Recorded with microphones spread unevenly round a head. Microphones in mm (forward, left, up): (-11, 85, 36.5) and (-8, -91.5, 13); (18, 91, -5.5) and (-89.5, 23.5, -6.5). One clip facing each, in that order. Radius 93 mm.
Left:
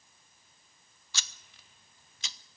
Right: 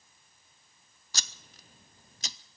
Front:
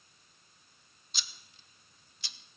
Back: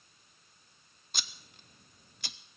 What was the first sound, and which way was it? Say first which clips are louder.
Scissors: right 3 dB, back 4 dB; 115° right.